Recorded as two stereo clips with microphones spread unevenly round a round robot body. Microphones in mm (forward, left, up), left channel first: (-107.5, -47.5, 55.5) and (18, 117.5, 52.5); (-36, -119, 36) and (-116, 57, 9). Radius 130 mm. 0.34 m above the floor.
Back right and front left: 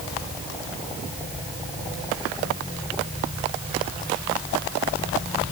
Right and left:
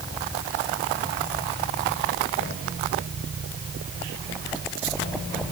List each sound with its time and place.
Only background noise.